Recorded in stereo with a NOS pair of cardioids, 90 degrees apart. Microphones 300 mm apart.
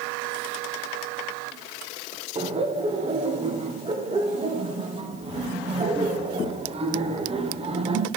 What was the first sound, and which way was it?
Laughter, 20° right.